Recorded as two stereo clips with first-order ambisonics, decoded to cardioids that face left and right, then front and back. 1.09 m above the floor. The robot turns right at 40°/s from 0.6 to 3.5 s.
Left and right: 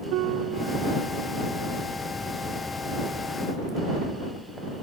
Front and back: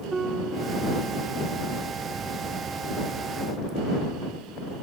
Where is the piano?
110° right; by 0.8 s 100° right.